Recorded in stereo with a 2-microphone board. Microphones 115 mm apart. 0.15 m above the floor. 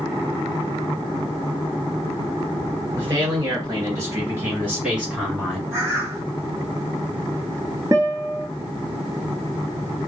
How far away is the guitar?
About 0.7 m.